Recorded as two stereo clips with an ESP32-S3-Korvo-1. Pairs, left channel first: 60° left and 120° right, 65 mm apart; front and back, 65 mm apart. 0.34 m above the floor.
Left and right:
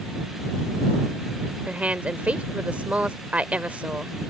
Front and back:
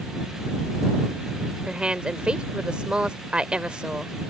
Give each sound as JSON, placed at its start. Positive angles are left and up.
{"t": 1.7, "sound": "a woman speaking", "azimuth_deg": -135}